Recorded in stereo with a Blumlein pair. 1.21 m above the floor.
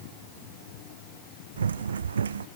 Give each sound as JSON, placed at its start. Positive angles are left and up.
{"t": 1.6, "sound": "running footsteps", "azimuth_deg": -70}